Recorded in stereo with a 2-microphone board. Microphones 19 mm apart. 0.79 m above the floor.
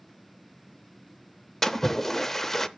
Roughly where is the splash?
Centre.